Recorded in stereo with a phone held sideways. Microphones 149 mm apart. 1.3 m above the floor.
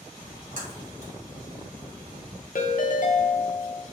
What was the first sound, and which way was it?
A splash, 65° left (ahead or behind).